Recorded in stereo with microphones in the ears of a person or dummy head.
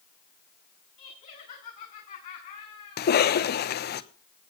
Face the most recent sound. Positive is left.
turn(degrees=50)  # may be behind; listen again after turning